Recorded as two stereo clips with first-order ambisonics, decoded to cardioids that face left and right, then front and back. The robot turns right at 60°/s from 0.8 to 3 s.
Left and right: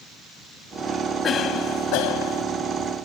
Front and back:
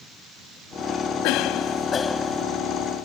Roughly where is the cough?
Ahead left.